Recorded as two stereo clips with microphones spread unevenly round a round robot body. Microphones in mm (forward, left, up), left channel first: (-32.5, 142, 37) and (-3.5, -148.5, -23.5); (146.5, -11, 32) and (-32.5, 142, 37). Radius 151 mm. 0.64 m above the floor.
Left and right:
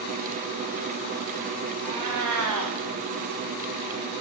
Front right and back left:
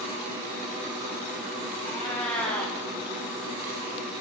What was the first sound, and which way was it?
A cat meowing, 120° right.